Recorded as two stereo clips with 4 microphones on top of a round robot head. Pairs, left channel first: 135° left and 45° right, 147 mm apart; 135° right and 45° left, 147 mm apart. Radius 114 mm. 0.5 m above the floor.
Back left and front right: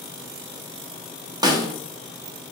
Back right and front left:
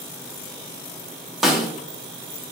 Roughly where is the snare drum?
Ahead right.